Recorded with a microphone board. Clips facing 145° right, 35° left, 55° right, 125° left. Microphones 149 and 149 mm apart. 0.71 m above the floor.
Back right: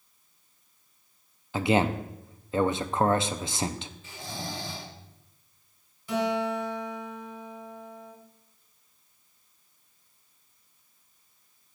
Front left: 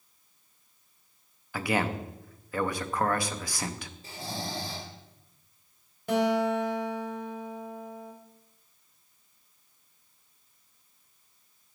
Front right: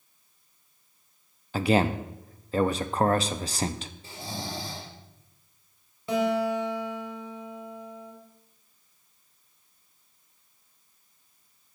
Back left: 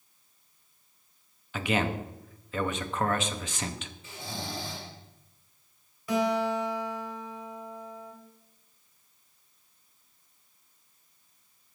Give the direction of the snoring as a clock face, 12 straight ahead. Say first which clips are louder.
Front left 3 dB, front right 2 dB; 12 o'clock.